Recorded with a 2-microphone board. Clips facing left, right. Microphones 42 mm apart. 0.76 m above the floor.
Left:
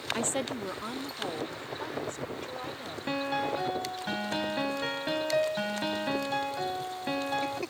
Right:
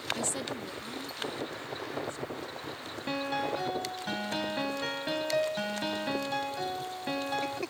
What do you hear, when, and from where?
0.1 s a woman speaking: 35° left (ahead or behind); by 3.0 s 65° left (ahead or behind)
3.1 s a piano: 5° left (ahead or behind)